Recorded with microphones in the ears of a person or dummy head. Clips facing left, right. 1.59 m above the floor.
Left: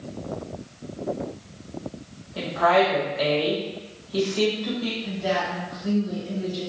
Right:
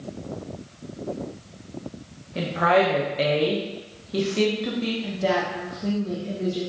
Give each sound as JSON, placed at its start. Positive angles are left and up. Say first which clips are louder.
{"t": 2.4, "sound": "a woman speaking", "louder": "even", "side_deg": -30, "distance_m": 0.9}
{"t": 5.0, "sound": "a woman speaking", "louder": "right 1 dB", "side_deg": -70, "distance_m": 1.2}